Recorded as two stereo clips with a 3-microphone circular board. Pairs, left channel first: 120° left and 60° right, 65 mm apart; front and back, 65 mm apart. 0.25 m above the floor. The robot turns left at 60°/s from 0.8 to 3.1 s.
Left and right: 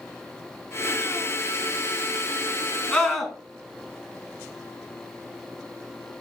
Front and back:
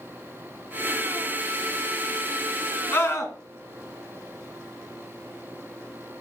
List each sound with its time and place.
2.9 s a scream: 50° left, 3 m; by 3.3 s 35° left, 3 m